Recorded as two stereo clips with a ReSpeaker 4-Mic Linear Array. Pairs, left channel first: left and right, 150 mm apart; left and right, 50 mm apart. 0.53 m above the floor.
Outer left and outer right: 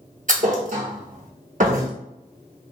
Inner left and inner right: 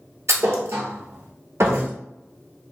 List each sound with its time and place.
0.3 s a thud: 60° right (ahead or behind), 0.8 m